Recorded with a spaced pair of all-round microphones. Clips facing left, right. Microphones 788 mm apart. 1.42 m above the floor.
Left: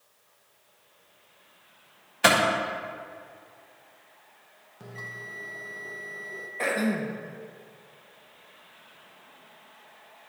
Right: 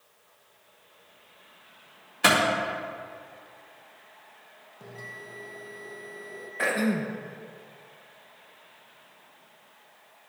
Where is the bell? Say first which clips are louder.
Even; 40° left (ahead or behind), 0.7 m.